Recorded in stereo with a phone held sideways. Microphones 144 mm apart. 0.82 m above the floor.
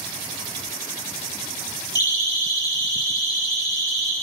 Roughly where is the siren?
Left.